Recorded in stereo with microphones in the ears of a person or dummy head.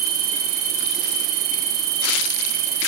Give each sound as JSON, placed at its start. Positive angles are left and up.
{"t": 0.0, "sound": "an insect", "side_deg": -55, "distance_m": 0.7}